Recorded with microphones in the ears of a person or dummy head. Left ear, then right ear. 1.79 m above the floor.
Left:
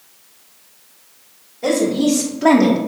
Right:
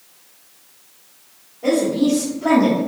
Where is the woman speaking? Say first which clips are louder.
Left 1 dB; 50° left (ahead or behind), 1.2 m; by 2.8 s 30° left (ahead or behind), 0.6 m.